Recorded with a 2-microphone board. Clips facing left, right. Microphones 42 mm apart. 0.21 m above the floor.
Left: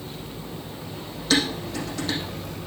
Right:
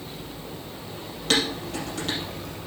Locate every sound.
1.3 s dishes clattering: 75° right (ahead or behind), 4 m